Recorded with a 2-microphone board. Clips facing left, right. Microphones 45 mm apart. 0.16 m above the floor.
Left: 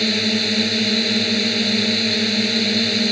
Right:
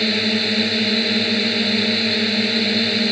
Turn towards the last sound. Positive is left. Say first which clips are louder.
# even
turn(degrees=-10)  # may be behind; listen again after turning